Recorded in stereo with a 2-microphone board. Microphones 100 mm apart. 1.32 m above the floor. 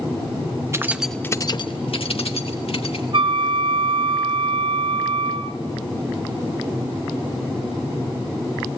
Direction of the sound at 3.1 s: 55° right (ahead or behind).